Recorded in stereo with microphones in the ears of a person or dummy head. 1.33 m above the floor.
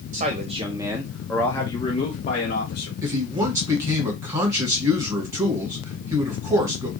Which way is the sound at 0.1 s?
40° right (ahead or behind).